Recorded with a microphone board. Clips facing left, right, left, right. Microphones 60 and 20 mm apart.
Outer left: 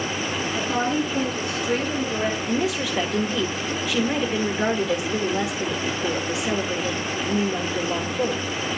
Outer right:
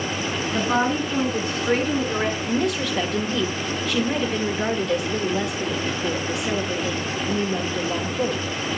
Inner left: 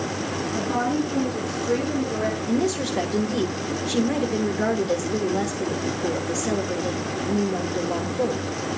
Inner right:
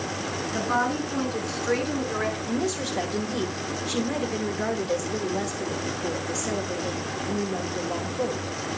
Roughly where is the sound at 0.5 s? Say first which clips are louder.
Outer right 3 dB, even; right.